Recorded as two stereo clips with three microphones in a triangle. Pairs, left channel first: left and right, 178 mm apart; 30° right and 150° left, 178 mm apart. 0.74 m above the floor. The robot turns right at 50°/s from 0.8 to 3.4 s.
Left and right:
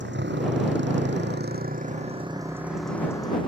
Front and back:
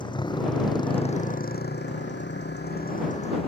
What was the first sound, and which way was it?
A motorcycle, 95° right.